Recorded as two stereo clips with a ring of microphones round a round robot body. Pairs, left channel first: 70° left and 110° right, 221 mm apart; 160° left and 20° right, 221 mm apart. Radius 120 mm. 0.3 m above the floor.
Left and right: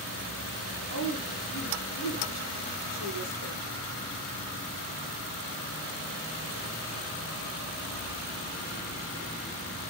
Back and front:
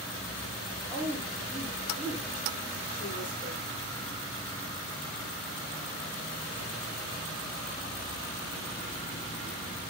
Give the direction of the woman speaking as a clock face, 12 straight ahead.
9 o'clock.